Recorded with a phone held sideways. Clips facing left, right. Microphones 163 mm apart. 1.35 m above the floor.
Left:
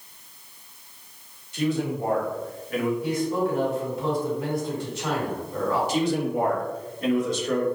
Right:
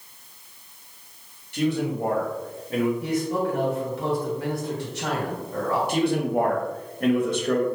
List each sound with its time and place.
1.5 s a man speaking: 65° right (ahead or behind), 1.6 m; by 2.9 s 25° right (ahead or behind), 1.2 m
3.0 s a man speaking: 75° right (ahead or behind), 1.8 m
5.9 s a man speaking: 55° right (ahead or behind), 0.9 m